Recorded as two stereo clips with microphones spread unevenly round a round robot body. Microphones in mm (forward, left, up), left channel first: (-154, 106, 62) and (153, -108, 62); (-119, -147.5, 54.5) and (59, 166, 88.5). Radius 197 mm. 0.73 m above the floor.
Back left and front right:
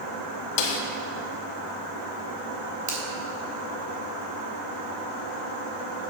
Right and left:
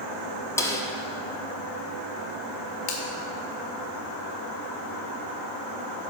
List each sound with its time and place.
0.6 s a snare drum: 160° left, 1.1 m
2.9 s a finger snap: 105° right, 1.9 m